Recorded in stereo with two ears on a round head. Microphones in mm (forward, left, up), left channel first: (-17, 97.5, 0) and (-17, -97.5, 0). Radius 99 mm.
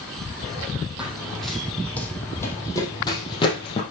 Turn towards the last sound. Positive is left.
turn(degrees=30)  # may be behind; listen again after turning